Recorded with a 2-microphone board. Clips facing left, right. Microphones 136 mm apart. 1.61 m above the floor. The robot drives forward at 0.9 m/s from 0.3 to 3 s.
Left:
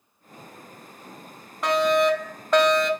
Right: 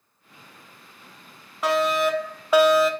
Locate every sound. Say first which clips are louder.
1.6 s a fire alarm: left 2 dB; 5° right (ahead or behind), 1.0 m